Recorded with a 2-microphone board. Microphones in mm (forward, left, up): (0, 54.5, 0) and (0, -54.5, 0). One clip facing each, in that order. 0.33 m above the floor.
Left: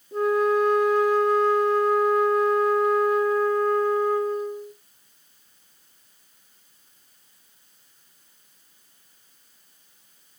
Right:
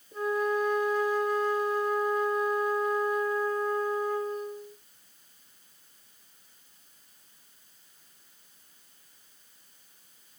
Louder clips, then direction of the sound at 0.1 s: Left 7 dB; 75° left (ahead or behind).